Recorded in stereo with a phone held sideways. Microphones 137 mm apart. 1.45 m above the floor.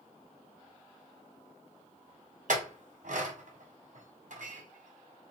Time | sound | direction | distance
2.5 | a clink | 65° right (ahead or behind) | 0.7 m